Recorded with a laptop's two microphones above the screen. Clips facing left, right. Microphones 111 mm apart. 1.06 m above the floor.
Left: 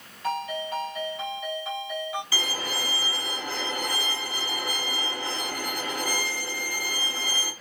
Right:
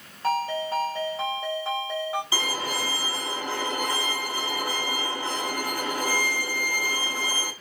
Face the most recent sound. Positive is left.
turn(degrees=-20)  # may be behind; listen again after turning